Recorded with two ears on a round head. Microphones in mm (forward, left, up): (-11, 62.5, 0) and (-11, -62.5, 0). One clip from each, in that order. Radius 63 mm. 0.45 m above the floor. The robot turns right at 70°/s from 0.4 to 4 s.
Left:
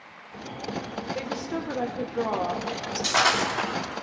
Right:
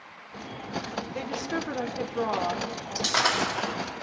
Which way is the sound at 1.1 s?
145° right.